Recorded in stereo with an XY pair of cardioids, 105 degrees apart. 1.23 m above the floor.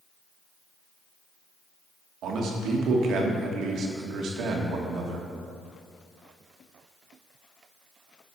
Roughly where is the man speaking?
Ahead right.